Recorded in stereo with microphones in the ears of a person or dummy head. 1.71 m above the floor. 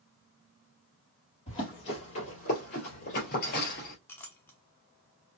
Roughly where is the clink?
Centre.